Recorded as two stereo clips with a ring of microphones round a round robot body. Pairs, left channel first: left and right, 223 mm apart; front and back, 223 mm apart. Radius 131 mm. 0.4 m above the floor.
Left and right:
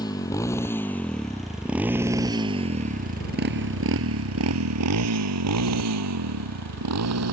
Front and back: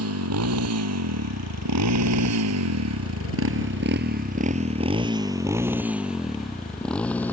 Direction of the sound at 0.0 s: 165° left.